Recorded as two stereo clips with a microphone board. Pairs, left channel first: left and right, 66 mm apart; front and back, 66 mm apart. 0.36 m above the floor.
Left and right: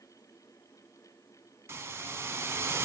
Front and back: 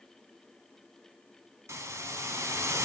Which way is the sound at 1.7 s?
140° right.